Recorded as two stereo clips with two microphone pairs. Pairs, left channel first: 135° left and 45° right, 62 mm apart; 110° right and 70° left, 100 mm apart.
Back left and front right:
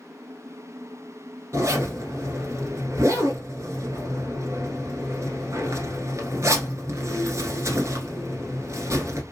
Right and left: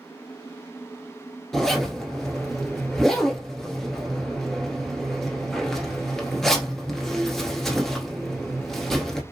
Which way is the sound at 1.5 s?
25° right.